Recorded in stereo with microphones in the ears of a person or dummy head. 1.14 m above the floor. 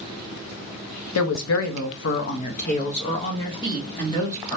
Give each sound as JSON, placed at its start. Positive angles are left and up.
{"t": 1.1, "sound": "a woman speaking", "side_deg": 85, "distance_m": 1.0}